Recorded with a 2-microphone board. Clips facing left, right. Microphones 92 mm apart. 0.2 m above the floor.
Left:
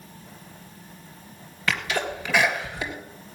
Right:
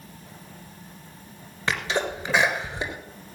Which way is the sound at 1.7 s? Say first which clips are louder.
Right 1 dB; 25° right (ahead or behind).